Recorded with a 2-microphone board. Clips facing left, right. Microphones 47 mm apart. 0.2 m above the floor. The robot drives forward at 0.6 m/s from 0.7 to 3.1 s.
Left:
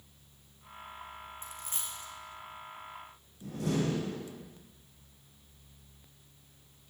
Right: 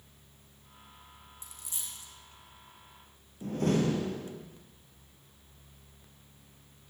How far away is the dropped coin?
About 3 m.